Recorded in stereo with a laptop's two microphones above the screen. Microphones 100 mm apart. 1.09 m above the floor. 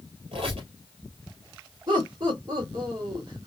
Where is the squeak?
70° right (ahead or behind), 2.5 m.